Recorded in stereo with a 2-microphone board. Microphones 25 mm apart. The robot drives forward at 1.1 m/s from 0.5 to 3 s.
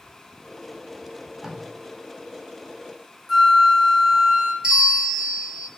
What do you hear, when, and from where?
1.1 s tape being pulled: 20° right (ahead or behind), 0.5 m; by 1.6 s 10° right (ahead or behind), 1.1 m
3.3 s a flute: 15° left (ahead or behind), 0.9 m
4.6 s a bell: 30° right (ahead or behind), 1.0 m